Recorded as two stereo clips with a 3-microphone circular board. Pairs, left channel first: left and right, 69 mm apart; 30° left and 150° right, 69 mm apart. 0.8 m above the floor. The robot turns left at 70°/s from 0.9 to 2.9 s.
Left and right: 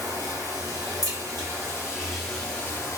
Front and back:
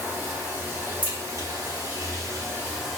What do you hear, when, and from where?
0.0 s running water: 90° right, 1.2 m; by 3.0 s 130° left, 1.2 m
1.0 s a crack: 80° right, 1.7 m; by 3.0 s 145° left, 1.7 m